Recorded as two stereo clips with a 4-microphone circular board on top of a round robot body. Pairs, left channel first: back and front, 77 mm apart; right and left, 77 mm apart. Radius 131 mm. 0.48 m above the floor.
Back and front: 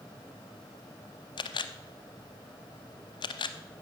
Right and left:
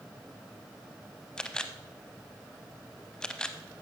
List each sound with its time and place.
1.4 s a camera shutter: 170° right, 0.7 m